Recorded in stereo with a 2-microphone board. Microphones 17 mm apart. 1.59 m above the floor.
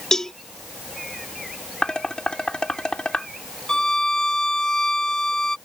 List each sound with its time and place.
0.1 s a cowbell: 30° left (ahead or behind)
1.8 s dishes clattering: 60° left (ahead or behind)
3.7 s a violin: 35° left (ahead or behind)